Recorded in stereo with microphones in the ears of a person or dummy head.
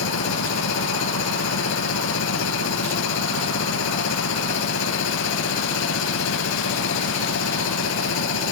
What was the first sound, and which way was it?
A machine running, 85° left.